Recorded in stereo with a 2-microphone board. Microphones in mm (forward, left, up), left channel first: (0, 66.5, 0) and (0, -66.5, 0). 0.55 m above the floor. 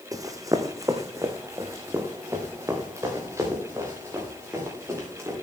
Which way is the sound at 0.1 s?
25° right (ahead or behind).